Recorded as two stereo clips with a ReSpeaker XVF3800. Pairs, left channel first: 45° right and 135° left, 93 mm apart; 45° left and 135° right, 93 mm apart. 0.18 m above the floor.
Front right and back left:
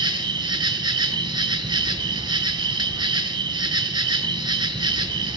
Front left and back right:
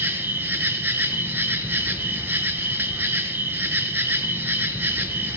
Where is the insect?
160° left, 0.7 m.